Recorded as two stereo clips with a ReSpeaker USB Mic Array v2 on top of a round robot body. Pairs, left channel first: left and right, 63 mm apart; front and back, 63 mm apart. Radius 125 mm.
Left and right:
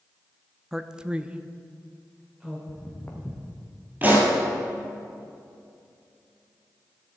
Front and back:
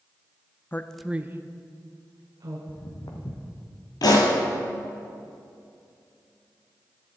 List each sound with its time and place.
0.7 s a man speaking: 10° right, 0.7 m; by 2.6 s 165° right, 1.9 m
2.7 s footsteps: 25° left, 1.6 m
4.0 s a pop: 20° right, 2 m